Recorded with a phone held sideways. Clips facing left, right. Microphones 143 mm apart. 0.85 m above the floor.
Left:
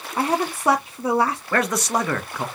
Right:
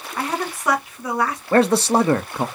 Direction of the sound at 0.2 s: 30° left (ahead or behind).